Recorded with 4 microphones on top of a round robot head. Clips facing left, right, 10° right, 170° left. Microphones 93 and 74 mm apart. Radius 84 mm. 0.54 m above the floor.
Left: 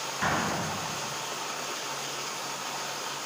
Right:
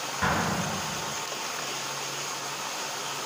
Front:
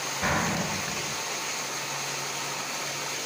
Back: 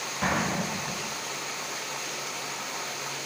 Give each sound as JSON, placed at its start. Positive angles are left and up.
{"t": 0.2, "sound": "an explosion", "azimuth_deg": -165, "distance_m": 1.9}